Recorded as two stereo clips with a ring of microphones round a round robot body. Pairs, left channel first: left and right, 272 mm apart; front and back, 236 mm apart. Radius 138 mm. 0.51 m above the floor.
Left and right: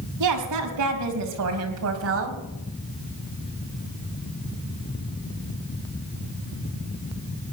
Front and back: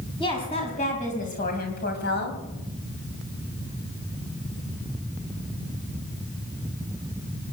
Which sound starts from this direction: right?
A woman speaking, at 0.2 s.